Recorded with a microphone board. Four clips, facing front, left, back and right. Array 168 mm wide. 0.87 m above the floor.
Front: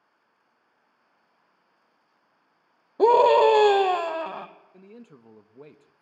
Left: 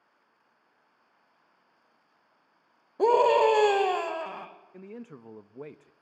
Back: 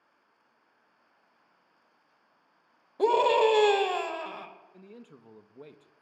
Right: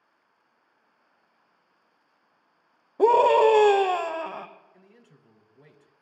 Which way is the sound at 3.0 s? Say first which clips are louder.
Right 3 dB, front 6 dB; 25° right.